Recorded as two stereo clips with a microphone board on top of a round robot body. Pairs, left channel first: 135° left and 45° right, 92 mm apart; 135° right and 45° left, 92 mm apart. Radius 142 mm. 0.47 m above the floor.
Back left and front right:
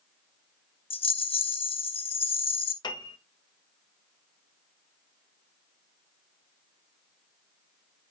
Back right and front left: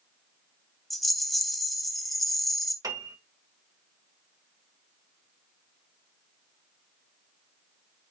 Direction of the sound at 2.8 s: 95° left.